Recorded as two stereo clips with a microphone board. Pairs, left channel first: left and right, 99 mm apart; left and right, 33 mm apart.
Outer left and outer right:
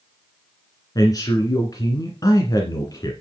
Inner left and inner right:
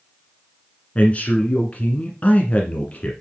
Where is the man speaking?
40° left (ahead or behind), 1.6 m.